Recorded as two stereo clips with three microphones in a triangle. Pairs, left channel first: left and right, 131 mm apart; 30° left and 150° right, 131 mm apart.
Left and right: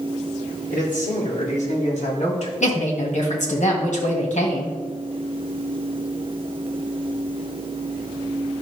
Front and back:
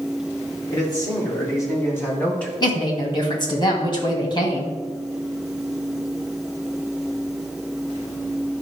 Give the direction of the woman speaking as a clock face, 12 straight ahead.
9 o'clock.